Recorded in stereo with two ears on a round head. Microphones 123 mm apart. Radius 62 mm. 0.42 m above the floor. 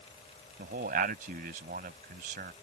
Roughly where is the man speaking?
Right.